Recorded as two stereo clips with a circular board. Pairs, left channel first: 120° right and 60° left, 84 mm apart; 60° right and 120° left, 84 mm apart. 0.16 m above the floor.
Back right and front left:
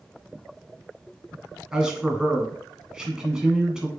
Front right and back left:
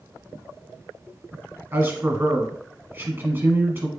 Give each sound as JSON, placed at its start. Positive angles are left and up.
{"t": 1.7, "sound": "a man speaking", "azimuth_deg": 130, "distance_m": 1.3}